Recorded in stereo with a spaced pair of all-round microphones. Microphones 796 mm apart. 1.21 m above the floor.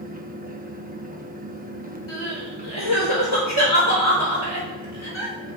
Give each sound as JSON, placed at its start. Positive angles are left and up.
{"t": 0.0, "sound": "a fan", "side_deg": -10, "distance_m": 1.2}
{"t": 2.1, "sound": "crying", "side_deg": 35, "distance_m": 5.0}